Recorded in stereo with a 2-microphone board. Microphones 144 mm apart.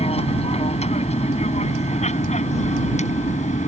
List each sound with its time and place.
0.0 s an aircraft: 45° left (ahead or behind); by 3.7 s 55° left (ahead or behind)